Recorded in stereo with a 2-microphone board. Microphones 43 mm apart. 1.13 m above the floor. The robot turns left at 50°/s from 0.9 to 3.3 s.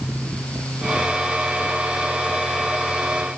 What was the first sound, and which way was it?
Only background noise.